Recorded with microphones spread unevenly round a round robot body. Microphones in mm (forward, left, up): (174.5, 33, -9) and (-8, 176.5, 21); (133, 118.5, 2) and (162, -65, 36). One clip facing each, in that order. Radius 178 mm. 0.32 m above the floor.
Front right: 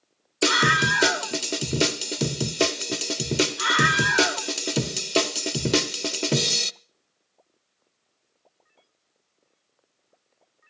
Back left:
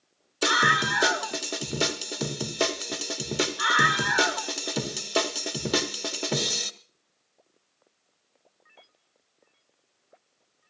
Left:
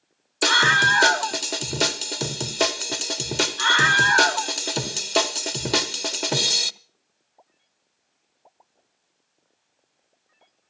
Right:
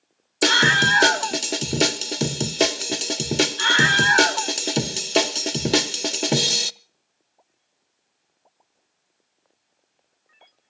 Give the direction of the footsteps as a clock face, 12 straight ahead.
No footsteps in this recording.